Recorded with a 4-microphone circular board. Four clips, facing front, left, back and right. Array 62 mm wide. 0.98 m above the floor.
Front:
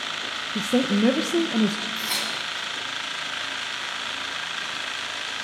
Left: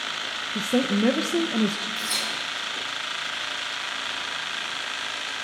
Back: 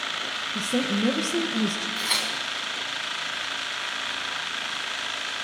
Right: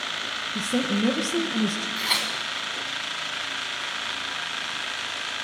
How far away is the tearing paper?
About 2 m.